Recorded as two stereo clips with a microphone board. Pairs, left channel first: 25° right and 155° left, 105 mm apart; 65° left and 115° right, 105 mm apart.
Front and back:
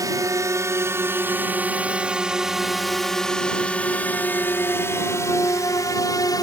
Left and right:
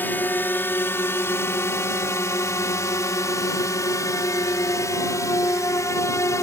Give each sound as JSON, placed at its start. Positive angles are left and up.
{"t": 0.0, "sound": "a drone", "azimuth_deg": 130}